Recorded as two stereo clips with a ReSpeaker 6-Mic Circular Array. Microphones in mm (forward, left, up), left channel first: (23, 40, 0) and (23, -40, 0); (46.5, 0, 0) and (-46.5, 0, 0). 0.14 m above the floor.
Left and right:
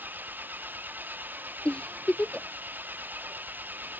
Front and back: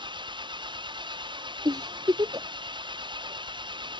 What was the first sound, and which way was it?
An engine running, 155° right.